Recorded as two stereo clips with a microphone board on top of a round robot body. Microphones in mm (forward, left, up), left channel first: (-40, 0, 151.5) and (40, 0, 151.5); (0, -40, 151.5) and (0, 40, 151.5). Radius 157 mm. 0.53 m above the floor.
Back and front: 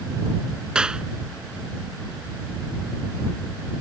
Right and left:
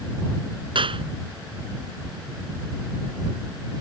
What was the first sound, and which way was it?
A clap, 80° left.